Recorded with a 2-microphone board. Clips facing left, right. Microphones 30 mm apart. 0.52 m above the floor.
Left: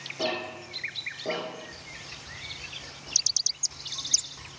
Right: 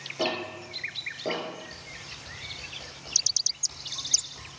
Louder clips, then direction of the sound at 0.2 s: Right 1 dB; 20° right (ahead or behind).